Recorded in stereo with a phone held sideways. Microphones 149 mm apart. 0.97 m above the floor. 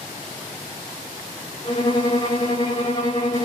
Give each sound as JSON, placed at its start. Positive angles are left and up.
{"t": 1.6, "sound": "a violin", "side_deg": 30, "distance_m": 2.0}